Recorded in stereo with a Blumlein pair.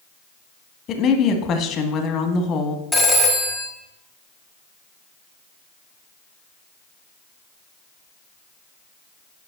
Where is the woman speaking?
30° left, 1.3 m.